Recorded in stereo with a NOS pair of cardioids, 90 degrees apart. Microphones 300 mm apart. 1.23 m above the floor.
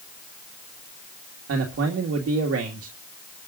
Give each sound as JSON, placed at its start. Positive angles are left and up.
{"t": 1.5, "sound": "a man speaking", "azimuth_deg": -50, "distance_m": 2.0}